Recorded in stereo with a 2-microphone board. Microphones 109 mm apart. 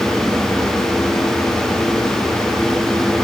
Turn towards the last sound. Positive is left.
No sound to turn to.